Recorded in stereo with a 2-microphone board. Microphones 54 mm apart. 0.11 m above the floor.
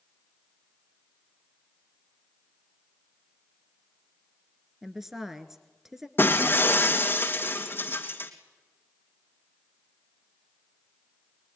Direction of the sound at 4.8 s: 5° right (ahead or behind).